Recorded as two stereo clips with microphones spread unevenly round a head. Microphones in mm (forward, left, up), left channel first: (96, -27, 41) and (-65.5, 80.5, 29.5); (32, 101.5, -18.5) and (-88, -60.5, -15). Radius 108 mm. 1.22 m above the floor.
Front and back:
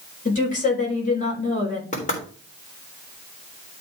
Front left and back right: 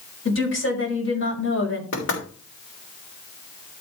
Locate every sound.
0.2 s a woman speaking: 15° left, 4.5 m
1.9 s knocking: 20° left, 3 m